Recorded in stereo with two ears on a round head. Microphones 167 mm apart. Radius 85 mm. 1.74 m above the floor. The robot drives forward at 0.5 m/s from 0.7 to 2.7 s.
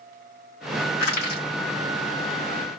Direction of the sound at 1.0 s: 60° left (ahead or behind).